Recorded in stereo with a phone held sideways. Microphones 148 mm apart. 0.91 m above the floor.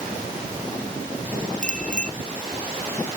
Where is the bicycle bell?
60° left (ahead or behind).